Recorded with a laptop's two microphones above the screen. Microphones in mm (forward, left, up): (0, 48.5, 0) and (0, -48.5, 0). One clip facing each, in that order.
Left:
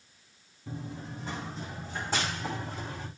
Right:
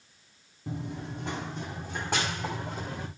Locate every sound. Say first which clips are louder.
0.7 s running footsteps: right 3 dB; 70° right (ahead or behind), 2.5 m; by 3.1 s 60° right (ahead or behind), 4 m